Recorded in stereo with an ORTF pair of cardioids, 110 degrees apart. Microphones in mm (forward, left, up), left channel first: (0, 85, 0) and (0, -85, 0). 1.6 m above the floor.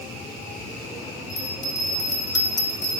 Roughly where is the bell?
Ahead.